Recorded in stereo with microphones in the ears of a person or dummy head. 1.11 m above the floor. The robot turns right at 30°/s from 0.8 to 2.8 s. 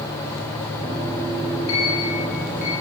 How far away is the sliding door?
About 7 m.